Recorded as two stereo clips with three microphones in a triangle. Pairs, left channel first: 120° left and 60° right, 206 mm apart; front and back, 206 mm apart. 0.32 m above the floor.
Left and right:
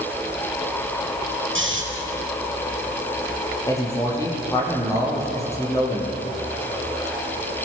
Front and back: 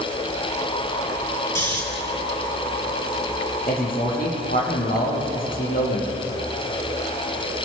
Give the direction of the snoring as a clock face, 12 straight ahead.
3 o'clock.